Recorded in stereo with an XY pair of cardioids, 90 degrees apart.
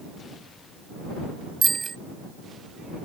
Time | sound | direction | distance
1.6 | a bicycle bell | 30° right | ?